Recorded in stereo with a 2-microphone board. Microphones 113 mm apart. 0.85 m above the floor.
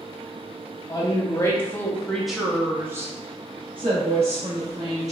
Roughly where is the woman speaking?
Left.